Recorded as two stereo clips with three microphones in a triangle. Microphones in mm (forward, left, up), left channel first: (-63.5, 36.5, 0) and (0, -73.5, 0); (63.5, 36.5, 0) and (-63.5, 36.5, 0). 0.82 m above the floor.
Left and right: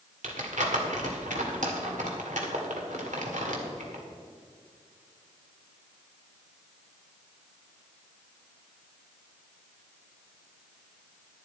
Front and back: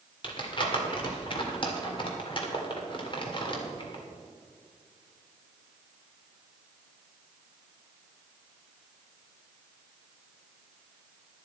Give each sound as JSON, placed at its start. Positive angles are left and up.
{"t": 0.2, "sound": "crumpling", "azimuth_deg": -45, "distance_m": 2.0}